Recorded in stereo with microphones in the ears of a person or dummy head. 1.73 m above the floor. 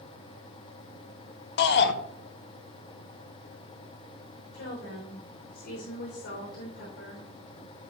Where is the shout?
70° left (ahead or behind), 1.2 m.